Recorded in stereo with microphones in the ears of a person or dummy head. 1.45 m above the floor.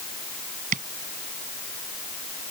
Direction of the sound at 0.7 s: 45° right (ahead or behind).